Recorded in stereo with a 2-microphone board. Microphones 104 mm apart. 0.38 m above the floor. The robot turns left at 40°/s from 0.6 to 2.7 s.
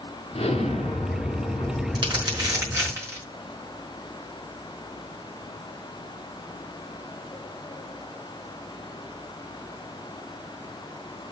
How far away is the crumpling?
About 5 m.